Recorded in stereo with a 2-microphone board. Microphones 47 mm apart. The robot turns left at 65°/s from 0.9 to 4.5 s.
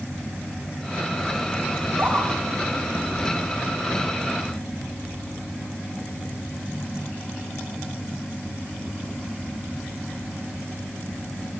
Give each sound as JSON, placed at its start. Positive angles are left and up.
{"t": 1.8, "sound": "a scream", "side_deg": -50, "distance_m": 7.0}